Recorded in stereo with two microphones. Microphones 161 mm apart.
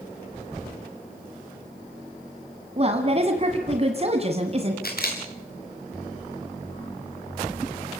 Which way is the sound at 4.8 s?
75° left (ahead or behind).